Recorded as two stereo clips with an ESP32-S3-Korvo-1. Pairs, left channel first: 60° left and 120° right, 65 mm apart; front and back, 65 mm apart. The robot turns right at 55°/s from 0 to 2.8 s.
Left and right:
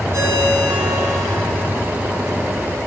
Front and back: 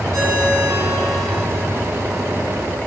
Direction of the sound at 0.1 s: 155° right.